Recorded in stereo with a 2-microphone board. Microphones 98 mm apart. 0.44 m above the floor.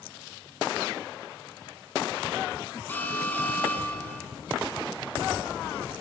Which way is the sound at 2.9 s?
15° left (ahead or behind).